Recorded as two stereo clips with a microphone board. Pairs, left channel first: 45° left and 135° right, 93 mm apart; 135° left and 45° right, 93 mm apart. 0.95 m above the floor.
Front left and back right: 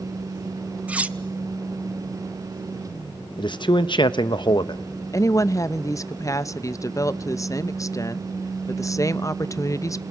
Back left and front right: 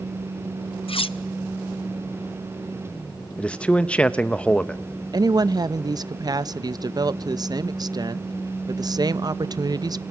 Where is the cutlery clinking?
150° left, 0.5 m.